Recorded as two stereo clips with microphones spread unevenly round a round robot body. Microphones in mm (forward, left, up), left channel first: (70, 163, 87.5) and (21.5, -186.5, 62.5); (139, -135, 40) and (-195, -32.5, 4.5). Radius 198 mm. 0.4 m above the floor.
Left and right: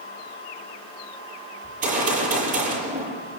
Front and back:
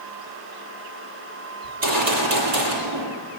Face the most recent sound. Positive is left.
turn(degrees=-165)